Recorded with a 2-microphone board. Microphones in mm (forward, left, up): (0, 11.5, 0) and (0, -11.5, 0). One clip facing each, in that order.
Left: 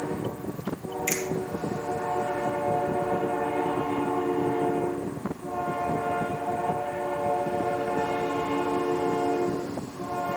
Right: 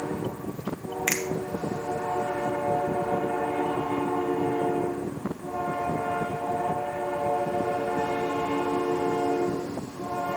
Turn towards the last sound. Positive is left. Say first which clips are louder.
# right 2 dB
turn(degrees=-50)  # may be behind; listen again after turning